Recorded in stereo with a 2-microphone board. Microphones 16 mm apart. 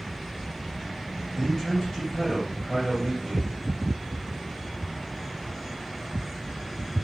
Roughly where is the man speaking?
Left.